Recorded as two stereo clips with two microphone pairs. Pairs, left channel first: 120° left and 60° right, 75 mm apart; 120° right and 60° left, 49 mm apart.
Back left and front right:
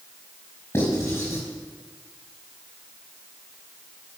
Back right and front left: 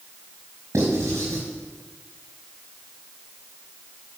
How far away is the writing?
About 4.5 m.